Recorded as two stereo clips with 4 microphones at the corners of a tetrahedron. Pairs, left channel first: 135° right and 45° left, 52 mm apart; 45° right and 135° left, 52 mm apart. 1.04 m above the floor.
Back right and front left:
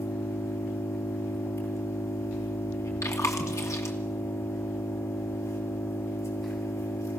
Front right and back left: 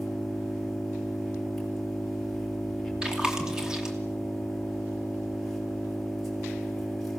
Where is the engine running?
130° right, 6.5 m.